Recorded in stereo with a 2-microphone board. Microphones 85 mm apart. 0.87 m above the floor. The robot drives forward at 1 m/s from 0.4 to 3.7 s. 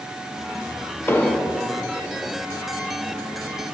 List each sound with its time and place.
1.1 s an explosion: 25° left (ahead or behind), 0.5 m; by 1.6 s 15° left (ahead or behind), 0.9 m